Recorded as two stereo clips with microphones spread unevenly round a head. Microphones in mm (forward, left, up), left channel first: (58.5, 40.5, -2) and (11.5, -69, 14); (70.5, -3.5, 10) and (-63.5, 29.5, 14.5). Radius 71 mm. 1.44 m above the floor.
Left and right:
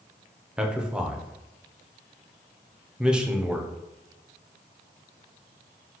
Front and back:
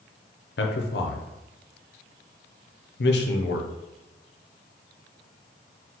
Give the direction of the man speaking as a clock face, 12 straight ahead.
1 o'clock.